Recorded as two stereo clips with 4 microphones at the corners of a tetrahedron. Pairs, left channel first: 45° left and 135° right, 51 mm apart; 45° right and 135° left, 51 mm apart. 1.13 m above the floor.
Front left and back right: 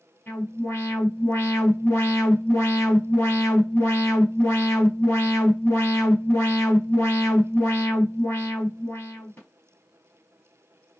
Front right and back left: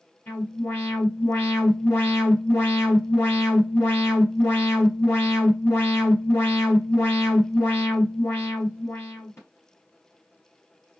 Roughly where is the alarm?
Ahead.